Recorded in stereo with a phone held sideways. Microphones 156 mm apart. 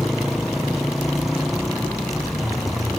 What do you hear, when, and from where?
0.0 s a motorcycle: centre (ahead or behind)